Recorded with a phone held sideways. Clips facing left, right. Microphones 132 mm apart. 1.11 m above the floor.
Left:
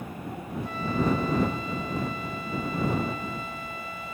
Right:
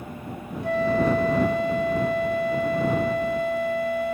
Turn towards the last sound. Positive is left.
turn(degrees=-70)  # may be behind; listen again after turning